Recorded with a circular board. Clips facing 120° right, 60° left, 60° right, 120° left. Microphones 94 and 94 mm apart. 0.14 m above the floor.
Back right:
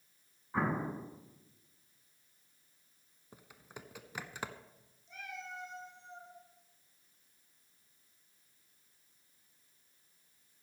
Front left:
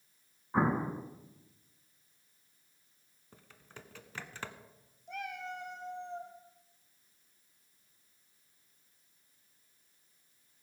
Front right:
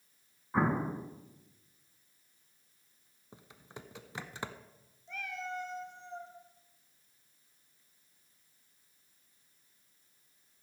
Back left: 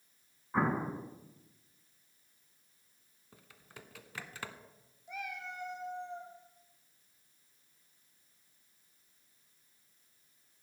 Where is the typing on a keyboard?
70° right, 0.8 m.